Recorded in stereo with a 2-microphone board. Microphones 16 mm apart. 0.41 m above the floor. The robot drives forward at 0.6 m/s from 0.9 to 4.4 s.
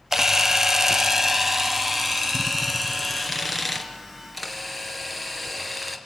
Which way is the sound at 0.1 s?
25° right (ahead or behind).